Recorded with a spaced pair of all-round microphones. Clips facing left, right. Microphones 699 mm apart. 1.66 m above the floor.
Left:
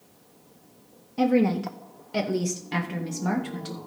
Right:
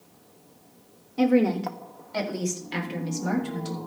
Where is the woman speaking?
20° left (ahead or behind), 1.0 m; by 3.8 s 80° left, 2.5 m.